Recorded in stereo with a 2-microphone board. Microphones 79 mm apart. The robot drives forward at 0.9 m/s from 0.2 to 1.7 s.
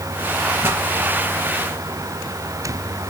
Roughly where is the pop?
Right.